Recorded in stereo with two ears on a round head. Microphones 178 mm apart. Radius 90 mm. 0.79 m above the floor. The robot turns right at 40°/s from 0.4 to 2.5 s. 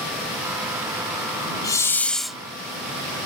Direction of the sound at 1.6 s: 20° left (ahead or behind).